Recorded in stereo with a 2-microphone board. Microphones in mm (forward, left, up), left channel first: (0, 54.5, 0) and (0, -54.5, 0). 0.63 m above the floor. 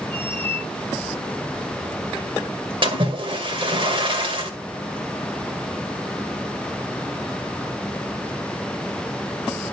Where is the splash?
50° right (ahead or behind), 2 m.